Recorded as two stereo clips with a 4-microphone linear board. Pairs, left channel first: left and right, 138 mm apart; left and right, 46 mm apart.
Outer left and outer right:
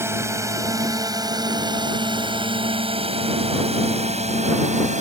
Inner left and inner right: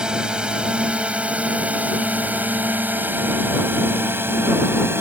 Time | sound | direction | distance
0.0 | a drone | 20° right (ahead or behind) | ?